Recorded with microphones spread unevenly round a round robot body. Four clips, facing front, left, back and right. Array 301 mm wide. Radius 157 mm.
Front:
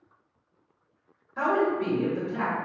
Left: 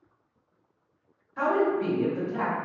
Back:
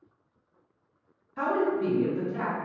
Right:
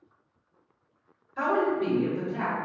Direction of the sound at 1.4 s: 10° right.